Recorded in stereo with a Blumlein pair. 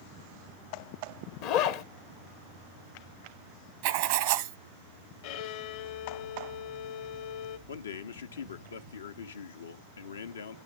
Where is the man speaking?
70° left, 0.8 m.